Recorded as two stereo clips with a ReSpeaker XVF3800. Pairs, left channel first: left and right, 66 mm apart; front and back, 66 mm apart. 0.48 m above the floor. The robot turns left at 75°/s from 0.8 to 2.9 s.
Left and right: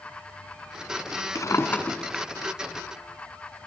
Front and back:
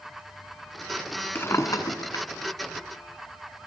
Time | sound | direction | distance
1.4 | a drawer | 60° left | 1.8 m